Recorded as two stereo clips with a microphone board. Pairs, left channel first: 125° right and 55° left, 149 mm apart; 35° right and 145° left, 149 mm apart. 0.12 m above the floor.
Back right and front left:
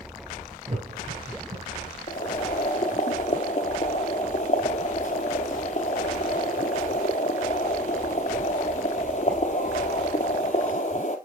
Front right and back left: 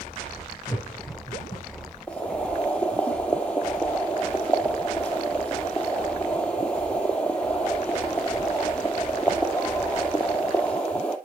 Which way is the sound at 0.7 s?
20° left.